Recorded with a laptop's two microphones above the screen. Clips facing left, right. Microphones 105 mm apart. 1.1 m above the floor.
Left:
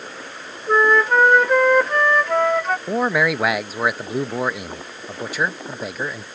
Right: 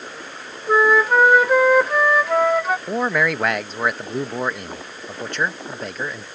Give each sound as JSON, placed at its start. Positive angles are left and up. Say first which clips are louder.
{"t": 0.7, "sound": "a flute", "louder": "even", "side_deg": -5}
{"t": 2.9, "sound": "a man speaking", "louder": "left 4 dB", "side_deg": 5}